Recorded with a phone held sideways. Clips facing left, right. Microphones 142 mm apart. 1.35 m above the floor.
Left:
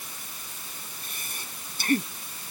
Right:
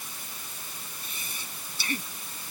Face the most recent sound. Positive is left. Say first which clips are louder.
# left 1 dB
turn(degrees=50)  # may be behind; listen again after turning